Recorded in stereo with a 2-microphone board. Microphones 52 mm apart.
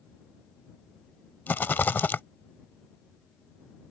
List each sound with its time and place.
1.5 s a rattle: 40° left (ahead or behind)